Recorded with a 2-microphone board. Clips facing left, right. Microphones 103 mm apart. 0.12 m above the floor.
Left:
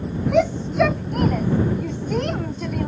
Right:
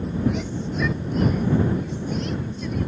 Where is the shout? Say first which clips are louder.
Left 9 dB; 70° left (ahead or behind); by 2.9 s 60° left (ahead or behind).